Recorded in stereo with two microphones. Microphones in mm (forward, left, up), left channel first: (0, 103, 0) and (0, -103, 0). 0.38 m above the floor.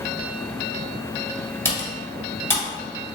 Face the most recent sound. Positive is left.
turn(degrees=10)  # may be behind; listen again after turning